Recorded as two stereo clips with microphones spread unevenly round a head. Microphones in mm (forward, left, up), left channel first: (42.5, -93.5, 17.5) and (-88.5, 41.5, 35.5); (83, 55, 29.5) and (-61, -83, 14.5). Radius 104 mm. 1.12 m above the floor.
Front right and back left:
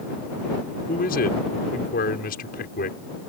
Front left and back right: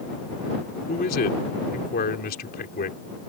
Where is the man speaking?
Straight ahead.